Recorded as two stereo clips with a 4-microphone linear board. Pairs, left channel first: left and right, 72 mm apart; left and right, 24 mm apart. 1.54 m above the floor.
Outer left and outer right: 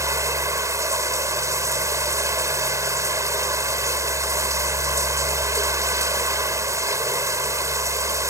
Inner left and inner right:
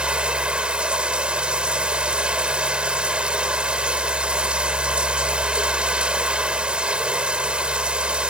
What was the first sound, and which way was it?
Running water, 45° right (ahead or behind).